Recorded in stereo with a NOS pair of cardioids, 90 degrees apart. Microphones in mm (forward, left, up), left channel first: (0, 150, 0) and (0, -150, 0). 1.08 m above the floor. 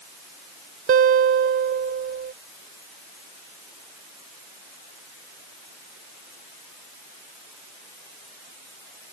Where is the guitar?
45° right.